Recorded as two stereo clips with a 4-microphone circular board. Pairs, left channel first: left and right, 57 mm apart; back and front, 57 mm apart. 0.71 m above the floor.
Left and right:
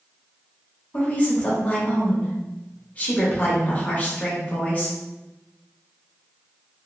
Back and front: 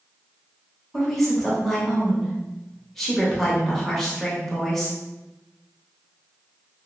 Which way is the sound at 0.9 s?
100° left.